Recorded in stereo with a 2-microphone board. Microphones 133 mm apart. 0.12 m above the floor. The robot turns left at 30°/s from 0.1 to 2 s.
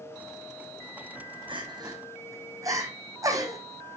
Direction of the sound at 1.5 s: 40° right (ahead or behind).